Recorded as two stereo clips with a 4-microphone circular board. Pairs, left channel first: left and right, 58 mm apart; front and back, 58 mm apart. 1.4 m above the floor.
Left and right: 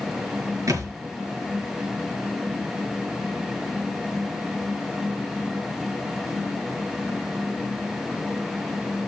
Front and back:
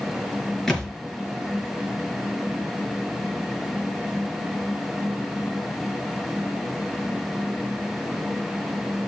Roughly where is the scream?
I don't hear a scream.